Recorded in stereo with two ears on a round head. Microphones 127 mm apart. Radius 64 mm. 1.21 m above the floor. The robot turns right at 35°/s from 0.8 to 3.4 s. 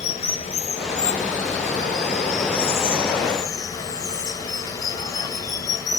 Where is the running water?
60° left, 1.6 m; by 6.0 s 150° left, 1.6 m.